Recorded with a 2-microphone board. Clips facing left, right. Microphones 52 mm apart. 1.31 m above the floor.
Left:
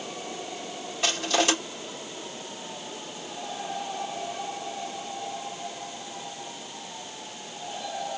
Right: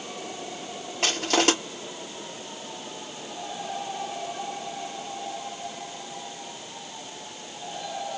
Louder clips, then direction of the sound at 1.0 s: Right 2 dB; 70° right (ahead or behind).